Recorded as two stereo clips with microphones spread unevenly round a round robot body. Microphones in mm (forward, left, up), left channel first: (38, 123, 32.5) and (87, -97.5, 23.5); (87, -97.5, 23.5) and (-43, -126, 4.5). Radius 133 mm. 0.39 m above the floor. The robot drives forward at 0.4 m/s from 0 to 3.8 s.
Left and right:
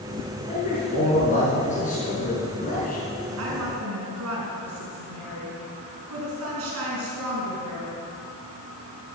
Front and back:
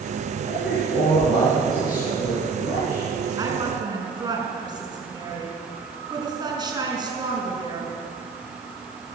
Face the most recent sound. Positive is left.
turn(degrees=-110)